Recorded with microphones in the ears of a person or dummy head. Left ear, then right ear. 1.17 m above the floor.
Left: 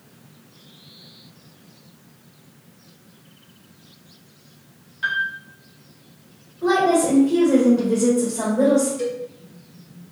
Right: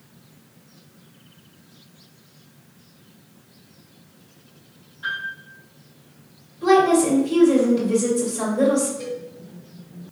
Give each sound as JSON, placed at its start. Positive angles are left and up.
{"t": 5.0, "sound": "a piano", "side_deg": 60, "distance_m": 1.2}
{"t": 6.6, "sound": "a woman speaking", "side_deg": -60, "distance_m": 1.3}
{"t": 9.0, "sound": "a cowbell", "side_deg": 55, "distance_m": 1.3}